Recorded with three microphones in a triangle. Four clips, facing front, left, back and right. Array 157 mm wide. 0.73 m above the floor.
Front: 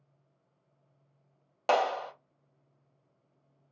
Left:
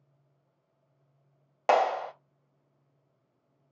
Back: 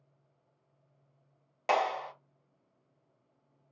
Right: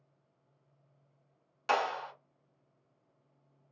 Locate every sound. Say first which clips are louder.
1.7 s a clap: left 7 dB, front 2 dB; 70° left, 0.9 m